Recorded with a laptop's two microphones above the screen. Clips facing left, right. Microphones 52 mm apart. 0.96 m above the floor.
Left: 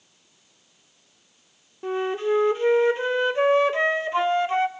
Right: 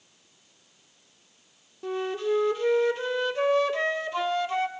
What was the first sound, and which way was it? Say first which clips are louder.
A flute: left 4 dB; 30° left (ahead or behind).